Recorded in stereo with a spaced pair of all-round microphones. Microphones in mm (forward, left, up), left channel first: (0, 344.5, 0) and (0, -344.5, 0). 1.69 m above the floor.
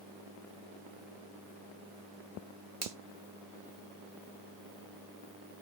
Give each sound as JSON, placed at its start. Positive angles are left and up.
{"t": 2.8, "sound": "a finger snap", "side_deg": -50, "distance_m": 0.8}